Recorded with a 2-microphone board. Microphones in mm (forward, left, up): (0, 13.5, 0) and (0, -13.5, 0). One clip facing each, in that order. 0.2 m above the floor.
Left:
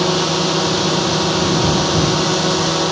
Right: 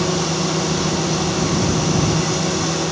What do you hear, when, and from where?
0.0 s a drone: 45° left (ahead or behind); by 2.9 s 55° left (ahead or behind)